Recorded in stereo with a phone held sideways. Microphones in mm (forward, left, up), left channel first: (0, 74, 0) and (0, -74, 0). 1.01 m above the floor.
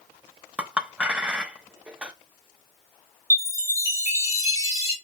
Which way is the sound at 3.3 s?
20° left (ahead or behind).